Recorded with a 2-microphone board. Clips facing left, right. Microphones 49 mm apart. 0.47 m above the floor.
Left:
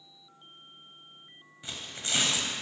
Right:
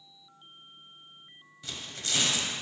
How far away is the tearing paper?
About 0.8 m.